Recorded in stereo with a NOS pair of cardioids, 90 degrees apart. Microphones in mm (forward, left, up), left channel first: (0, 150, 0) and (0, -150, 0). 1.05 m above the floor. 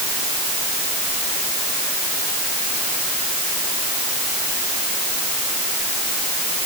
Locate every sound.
Only background noise.